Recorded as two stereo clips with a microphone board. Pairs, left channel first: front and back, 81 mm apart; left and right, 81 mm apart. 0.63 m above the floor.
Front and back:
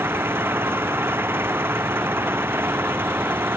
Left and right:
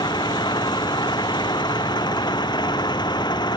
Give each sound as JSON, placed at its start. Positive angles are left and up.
{"t": 0.0, "sound": "an engine running", "azimuth_deg": 115}